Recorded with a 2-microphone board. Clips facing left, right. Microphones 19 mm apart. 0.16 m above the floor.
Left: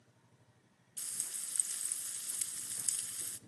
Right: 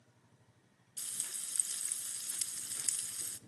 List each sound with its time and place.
1.0 s frying: 35° right (ahead or behind), 0.6 m